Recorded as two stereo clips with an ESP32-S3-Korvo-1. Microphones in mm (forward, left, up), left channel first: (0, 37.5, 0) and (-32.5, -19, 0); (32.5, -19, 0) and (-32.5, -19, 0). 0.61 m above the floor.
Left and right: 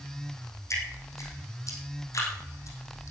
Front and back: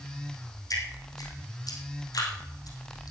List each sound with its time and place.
0.7 s dripping: 20° left, 5 m